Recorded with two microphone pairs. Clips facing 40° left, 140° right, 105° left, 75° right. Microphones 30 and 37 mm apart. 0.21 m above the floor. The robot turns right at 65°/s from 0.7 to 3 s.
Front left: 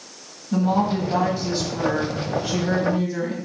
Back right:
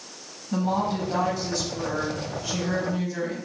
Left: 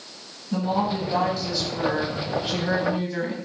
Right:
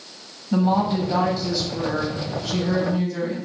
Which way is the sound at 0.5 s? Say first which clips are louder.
Front left 4 dB, right 4 dB; 40° right.